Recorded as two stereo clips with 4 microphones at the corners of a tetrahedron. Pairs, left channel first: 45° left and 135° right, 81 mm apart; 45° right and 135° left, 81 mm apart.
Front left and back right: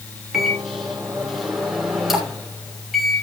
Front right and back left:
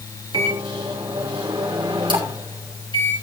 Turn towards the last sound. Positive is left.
turn(degrees=140)